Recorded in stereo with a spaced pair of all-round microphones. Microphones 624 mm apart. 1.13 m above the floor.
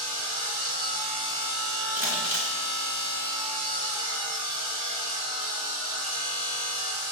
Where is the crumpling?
35° right (ahead or behind), 2 m.